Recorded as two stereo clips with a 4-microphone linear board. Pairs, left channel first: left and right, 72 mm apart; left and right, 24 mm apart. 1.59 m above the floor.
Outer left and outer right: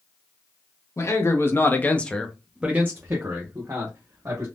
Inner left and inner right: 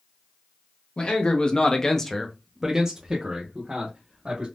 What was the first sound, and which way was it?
A man speaking, 40° left (ahead or behind).